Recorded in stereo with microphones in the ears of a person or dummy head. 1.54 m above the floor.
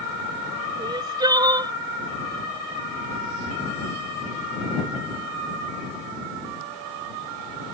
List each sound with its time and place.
0.8 s crying: 20° right (ahead or behind)